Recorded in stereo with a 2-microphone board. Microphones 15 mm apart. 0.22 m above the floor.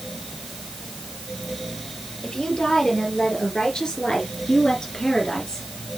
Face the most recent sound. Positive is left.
turn(degrees=60)  # may be behind; listen again after turning